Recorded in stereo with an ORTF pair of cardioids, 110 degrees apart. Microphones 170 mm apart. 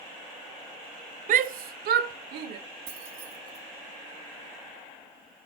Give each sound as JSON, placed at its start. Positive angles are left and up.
{"t": 1.3, "sound": "a shout", "azimuth_deg": -50, "distance_m": 0.5}
{"t": 2.9, "sound": "keys jangling", "azimuth_deg": -65, "distance_m": 1.9}